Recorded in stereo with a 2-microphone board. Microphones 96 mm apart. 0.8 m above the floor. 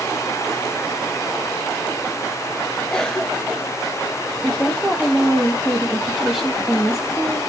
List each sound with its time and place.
2.9 s a cough: 10° left (ahead or behind), 1.5 m
4.4 s a woman speaking: 5° right (ahead or behind), 0.8 m